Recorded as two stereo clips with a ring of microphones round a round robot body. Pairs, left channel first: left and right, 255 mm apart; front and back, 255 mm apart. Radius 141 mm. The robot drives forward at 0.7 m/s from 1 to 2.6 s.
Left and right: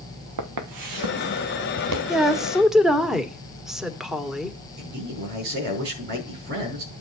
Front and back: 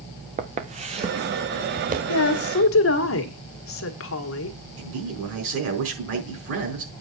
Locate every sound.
0.4 s footsteps: 120° right, 1.7 m
2.1 s a woman speaking: straight ahead, 1.8 m
4.8 s a man speaking: 145° right, 4.5 m